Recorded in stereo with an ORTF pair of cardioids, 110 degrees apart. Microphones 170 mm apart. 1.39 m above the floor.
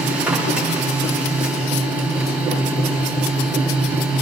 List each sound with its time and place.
0.0 s a machine running: 10° right, 3 m